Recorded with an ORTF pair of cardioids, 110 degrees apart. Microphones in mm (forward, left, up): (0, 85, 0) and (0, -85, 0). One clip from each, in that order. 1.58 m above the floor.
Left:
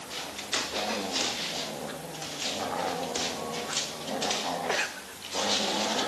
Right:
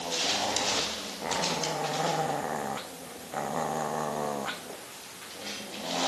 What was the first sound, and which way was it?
Only background noise.